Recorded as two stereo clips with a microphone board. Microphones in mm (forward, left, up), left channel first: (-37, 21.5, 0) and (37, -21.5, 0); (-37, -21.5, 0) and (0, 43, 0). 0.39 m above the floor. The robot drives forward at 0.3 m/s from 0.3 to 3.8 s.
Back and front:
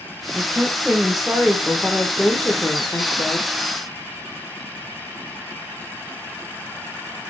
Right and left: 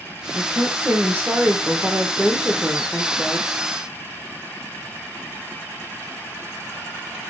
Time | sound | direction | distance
0.3 | a woman speaking | 40° left | 1.1 m